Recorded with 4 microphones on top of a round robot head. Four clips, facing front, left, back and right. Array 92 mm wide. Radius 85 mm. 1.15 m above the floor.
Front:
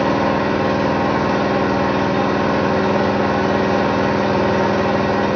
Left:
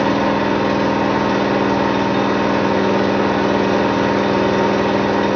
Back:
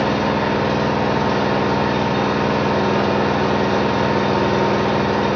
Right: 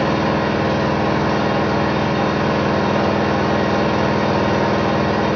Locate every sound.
0.0 s an engine running: 65° left, 1.1 m